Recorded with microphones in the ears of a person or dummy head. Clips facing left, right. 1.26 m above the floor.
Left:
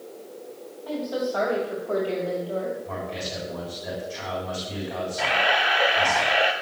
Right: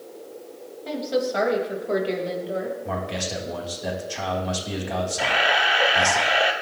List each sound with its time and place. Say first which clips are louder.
0.8 s a woman speaking: right 3 dB; 35° right (ahead or behind), 6 m; by 2.8 s 20° right (ahead or behind), 5.5 m
2.9 s a man speaking: right 3 dB; 70° right (ahead or behind), 4.5 m
5.2 s a camera shutter: left 2 dB; centre (ahead or behind), 1.5 m